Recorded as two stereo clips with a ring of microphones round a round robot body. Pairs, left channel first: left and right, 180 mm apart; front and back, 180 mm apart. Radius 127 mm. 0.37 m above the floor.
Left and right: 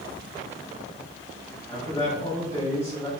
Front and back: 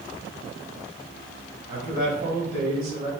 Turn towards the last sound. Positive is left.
turn(degrees=165)